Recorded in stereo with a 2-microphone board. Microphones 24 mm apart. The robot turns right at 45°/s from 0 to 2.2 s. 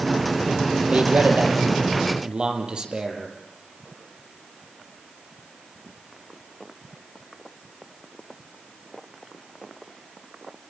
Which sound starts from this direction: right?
A man speaking, at 0.9 s.